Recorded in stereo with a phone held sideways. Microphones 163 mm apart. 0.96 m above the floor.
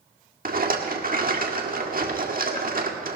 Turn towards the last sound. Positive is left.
turn(degrees=-60)  # may be behind; listen again after turning